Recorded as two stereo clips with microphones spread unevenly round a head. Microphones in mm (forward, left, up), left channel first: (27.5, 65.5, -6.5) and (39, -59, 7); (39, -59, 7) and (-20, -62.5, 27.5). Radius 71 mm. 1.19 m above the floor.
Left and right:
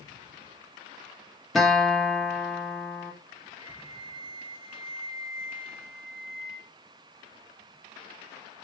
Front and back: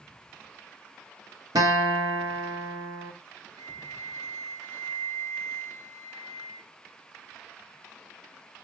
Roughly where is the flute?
Behind right.